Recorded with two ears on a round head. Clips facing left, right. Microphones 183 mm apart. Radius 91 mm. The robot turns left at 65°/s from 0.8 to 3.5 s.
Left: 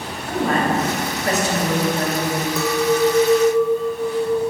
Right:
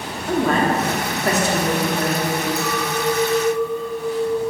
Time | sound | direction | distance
0.3 | a woman speaking | 90° right | 2 m
2.6 | a clink | 60° left | 1.2 m